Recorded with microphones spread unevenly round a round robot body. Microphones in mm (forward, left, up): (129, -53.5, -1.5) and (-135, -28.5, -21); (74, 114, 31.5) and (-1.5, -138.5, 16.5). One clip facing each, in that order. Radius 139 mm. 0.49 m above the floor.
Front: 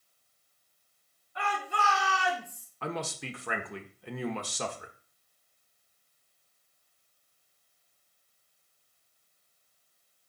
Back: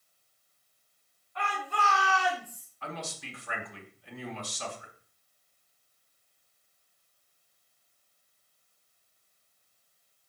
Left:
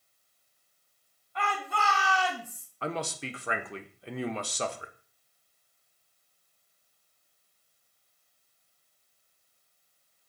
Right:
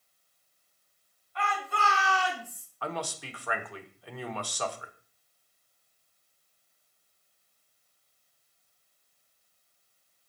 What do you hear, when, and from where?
1.4 s a shout: 75° left, 4.5 m; by 2.7 s 70° left, 3.5 m
2.8 s a man speaking: 15° left, 1.1 m